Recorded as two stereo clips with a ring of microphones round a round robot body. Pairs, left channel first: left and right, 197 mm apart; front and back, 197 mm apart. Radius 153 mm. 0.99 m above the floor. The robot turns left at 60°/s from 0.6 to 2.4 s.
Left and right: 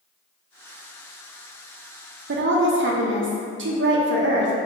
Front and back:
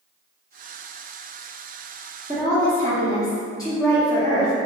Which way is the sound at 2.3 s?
65° right.